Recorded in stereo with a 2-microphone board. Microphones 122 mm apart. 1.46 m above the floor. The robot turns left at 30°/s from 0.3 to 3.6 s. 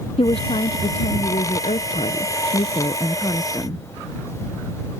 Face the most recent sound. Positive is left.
turn(degrees=25)